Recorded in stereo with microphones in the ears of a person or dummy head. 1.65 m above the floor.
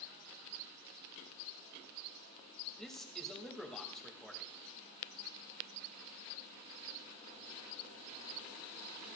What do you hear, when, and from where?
2.8 s a man speaking: 5° left (ahead or behind), 2 m